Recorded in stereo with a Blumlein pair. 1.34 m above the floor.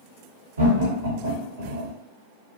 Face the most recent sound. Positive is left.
turn(degrees=-65)